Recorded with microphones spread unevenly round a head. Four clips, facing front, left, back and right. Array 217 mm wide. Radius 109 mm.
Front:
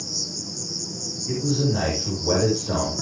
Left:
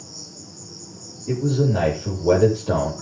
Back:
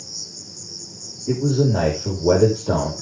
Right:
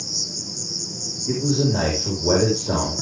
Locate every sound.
0.0 s an insect: 30° right, 2.0 m
1.3 s a man speaking: 175° right, 5.5 m